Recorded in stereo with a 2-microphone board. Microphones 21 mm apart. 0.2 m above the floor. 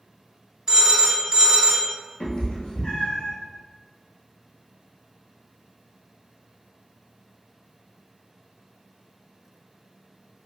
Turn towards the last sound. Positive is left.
turn(degrees=70)  # may be behind; listen again after turning